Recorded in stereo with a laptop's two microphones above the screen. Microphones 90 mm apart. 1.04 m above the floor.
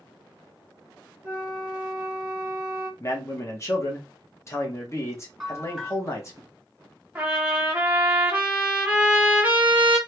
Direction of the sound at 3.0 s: 35° left (ahead or behind).